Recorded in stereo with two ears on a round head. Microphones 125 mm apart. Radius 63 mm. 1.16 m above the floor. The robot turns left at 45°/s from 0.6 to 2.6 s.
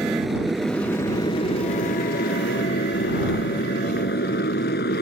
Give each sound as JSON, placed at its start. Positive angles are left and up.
{"t": 0.0, "sound": "a motorcycle", "side_deg": 0}